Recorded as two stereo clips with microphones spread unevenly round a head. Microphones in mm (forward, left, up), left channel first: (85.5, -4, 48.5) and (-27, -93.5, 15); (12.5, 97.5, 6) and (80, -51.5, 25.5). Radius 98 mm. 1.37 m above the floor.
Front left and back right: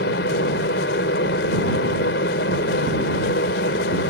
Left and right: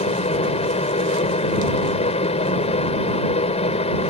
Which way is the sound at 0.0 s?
60° left.